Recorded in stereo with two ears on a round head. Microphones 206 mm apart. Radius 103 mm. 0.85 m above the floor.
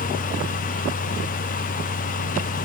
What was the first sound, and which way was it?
Only background noise.